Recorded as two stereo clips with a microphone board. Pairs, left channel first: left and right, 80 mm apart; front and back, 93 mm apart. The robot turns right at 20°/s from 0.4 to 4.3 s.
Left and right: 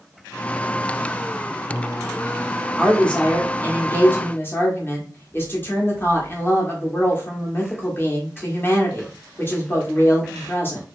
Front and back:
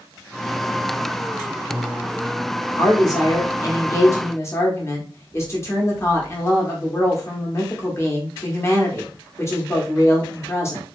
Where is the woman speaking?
10° left, 0.9 m; by 10.8 s 45° left, 0.9 m.